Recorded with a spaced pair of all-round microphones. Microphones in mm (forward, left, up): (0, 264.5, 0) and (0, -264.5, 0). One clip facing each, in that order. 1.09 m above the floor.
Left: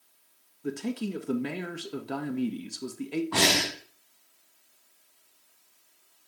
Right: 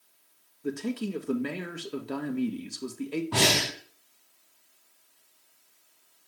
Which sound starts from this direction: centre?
A man speaking, at 0.6 s.